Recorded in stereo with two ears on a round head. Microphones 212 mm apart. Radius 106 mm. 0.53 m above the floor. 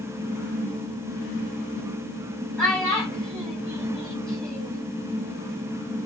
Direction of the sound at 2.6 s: Centre (ahead or behind).